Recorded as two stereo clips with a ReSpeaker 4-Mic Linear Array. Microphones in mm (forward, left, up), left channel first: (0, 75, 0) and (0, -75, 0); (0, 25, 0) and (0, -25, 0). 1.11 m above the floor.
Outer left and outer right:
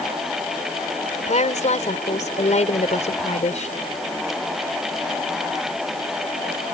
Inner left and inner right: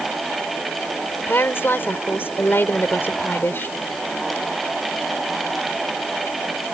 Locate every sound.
1.3 s a woman speaking: 50° left (ahead or behind)